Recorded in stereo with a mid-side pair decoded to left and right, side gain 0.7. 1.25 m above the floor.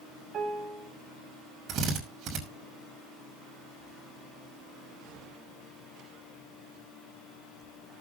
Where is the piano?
40° right, 3.5 m.